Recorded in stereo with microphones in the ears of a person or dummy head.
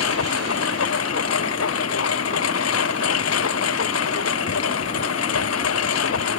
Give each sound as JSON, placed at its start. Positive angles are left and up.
{"t": 0.0, "sound": "a lawn mower", "side_deg": 75}